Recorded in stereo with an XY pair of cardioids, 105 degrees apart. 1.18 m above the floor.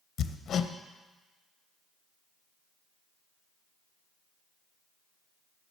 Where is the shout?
No shout in this recording.